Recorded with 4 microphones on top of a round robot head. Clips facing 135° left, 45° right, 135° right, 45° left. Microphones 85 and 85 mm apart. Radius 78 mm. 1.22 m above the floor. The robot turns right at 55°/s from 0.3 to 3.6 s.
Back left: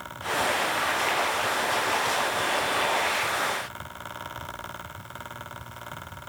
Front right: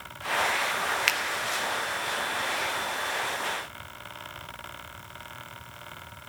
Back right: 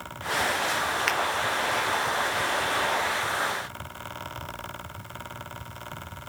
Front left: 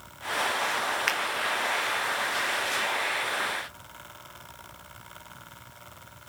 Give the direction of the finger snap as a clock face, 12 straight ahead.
2 o'clock.